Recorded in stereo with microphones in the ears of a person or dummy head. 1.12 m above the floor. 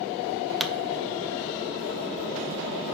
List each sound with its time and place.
0.6 s a pop: 5° right (ahead or behind), 0.7 m